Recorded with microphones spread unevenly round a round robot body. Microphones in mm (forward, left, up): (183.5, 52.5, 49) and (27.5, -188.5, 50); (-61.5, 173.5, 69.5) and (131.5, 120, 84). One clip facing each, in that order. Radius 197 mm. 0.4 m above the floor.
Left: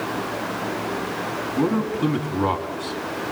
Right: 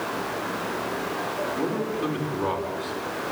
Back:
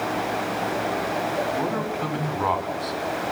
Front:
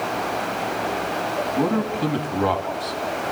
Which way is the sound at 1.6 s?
40° left.